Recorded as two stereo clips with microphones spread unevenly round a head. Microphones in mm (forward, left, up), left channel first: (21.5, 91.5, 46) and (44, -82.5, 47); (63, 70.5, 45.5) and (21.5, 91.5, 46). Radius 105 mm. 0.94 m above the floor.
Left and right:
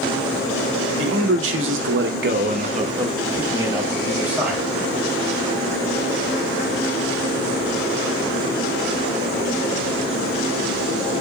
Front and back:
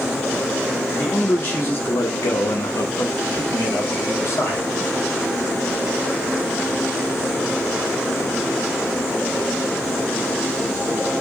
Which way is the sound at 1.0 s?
100° right.